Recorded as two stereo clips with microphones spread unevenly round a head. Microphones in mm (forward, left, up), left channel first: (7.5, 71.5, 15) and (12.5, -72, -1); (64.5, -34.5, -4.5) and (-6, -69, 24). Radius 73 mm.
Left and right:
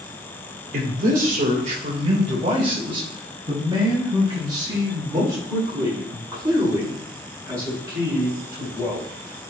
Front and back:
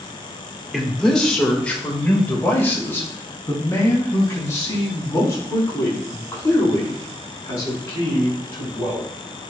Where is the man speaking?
65° right, 3 m; by 9.1 s 15° right, 12 m.